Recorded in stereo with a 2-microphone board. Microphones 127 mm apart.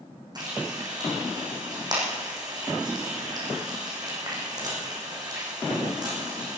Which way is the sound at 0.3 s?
35° right (ahead or behind).